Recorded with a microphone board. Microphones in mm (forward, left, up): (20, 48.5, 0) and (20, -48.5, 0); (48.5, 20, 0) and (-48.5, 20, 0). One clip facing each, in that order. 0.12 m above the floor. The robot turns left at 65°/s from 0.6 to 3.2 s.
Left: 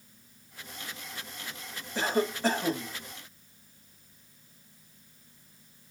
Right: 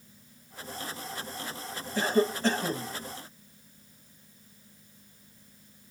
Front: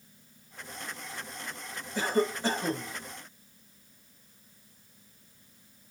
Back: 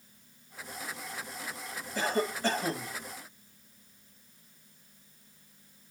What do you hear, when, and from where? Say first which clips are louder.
1.9 s a cough: right 3 dB, front 3 dB; 70° left, 1.5 m; by 2.9 s 5° left, 1.5 m